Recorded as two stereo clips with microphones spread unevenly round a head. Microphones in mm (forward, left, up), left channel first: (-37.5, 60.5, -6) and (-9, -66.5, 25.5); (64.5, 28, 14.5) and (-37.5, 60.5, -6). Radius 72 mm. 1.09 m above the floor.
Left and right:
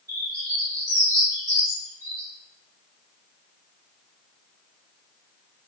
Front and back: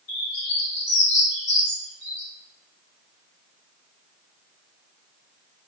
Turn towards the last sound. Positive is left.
turn(degrees=-5)